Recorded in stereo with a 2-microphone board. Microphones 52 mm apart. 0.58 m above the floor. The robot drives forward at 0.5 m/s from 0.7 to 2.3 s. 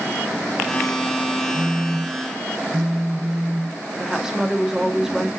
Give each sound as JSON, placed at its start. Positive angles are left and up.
{"t": 1.5, "sound": "a phone buzzing", "side_deg": -40, "distance_m": 1.0}
{"t": 4.0, "sound": "a woman speaking", "side_deg": -10, "distance_m": 0.6}